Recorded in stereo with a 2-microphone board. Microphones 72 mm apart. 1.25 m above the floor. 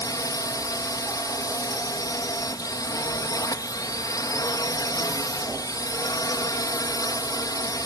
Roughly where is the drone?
Left.